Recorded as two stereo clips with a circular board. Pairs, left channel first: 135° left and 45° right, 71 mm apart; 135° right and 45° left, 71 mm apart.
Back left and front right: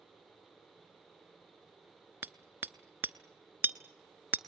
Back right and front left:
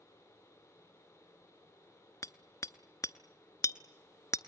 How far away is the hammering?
About 0.8 m.